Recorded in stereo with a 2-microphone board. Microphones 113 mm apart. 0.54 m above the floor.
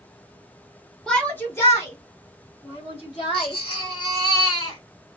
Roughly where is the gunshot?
I don't hear a gunshot.